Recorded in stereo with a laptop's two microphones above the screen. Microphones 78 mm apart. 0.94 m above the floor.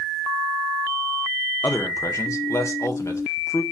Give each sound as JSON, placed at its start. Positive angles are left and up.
{"t": 1.6, "sound": "a man speaking", "side_deg": 40, "distance_m": 0.7}